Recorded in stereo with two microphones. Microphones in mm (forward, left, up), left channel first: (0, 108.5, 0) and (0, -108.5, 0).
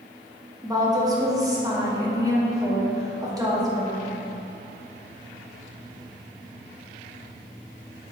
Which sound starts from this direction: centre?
A woman speaking, at 0.6 s.